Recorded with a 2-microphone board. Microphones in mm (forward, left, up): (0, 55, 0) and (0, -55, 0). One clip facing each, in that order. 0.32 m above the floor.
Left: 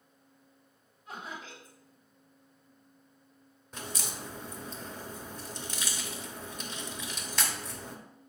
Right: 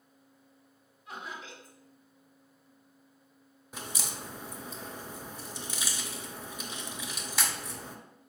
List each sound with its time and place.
1.1 s laughter: 35° left (ahead or behind), 2 m
3.7 s a crack: 5° right (ahead or behind), 0.7 m